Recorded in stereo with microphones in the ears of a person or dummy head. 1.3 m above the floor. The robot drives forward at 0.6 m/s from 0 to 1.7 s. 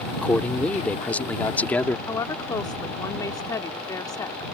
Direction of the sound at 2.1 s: 20° left (ahead or behind).